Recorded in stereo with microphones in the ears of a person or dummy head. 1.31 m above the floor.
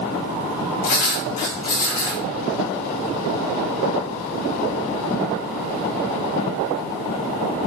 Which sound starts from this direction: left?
Writing, at 0.8 s.